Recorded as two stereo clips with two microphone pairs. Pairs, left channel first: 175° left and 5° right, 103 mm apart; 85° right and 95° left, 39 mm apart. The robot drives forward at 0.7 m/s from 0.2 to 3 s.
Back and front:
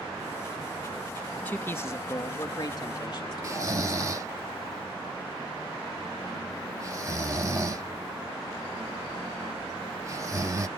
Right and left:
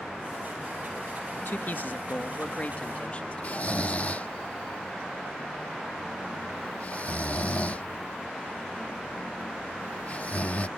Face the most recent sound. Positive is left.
turn(degrees=-45)